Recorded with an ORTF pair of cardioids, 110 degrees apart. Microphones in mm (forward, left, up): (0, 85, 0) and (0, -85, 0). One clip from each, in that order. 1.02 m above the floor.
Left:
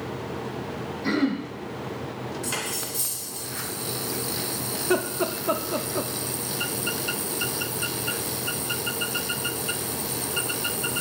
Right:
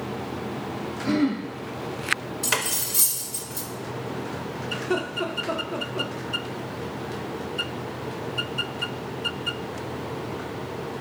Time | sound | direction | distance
1.0 | throat clearing | 50° left | 1.7 m
2.4 | cutlery clinking | 50° right | 0.6 m
4.8 | laughter | 25° left | 0.6 m